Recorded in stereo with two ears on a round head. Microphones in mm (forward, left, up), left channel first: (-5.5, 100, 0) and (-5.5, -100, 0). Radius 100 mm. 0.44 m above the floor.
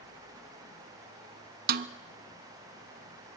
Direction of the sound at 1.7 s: 45° right (ahead or behind).